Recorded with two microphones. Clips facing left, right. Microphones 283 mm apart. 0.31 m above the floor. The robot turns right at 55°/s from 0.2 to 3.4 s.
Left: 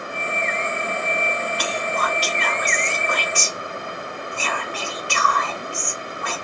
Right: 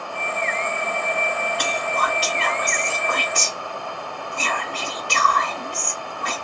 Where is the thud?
No thud in this recording.